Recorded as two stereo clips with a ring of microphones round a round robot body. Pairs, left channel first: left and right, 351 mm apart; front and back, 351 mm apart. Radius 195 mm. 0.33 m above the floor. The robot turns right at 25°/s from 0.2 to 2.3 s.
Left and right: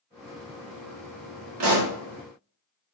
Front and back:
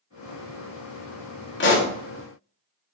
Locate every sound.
1.6 s a pop: 50° right, 0.8 m; by 1.9 s 45° right, 0.8 m